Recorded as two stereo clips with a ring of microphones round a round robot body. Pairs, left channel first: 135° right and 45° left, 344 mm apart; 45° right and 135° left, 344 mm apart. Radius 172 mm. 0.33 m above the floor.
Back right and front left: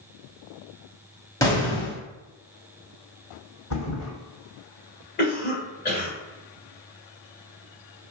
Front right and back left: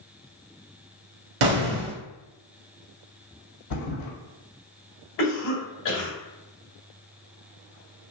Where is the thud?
85° right, 1.4 m.